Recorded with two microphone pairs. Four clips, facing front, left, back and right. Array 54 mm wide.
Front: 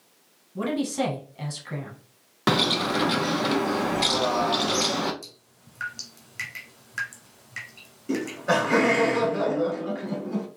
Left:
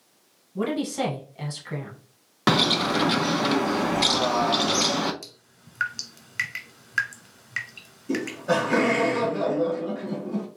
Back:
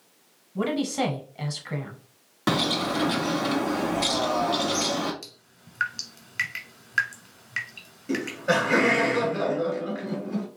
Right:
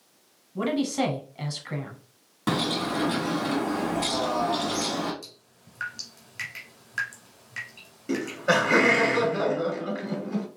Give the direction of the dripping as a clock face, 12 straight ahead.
8 o'clock.